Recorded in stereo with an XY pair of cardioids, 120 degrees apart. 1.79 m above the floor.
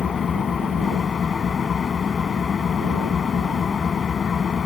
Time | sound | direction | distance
0.0 | an engine running | 40° left | ?